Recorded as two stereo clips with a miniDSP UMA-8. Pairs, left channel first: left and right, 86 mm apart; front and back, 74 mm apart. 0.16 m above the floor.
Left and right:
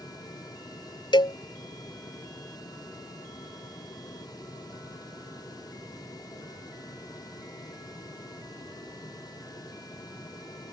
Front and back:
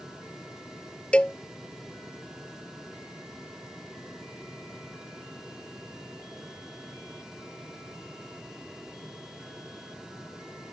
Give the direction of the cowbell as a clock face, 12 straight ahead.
10 o'clock.